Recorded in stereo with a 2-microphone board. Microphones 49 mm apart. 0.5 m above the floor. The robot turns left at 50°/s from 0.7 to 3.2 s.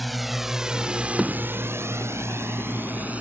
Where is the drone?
Centre (ahead or behind); by 3.2 s 30° right (ahead or behind).